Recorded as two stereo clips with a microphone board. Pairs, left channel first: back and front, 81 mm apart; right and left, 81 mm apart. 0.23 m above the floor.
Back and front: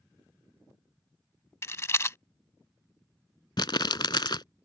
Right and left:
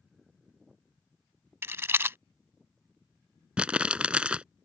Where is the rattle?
140° left.